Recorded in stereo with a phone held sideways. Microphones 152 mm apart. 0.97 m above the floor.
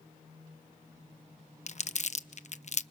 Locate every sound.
1.7 s crumpling: 50° left (ahead or behind), 0.7 m